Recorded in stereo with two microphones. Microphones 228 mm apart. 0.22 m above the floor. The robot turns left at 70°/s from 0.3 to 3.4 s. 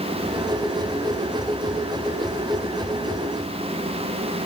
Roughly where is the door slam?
I don't hear a door slam.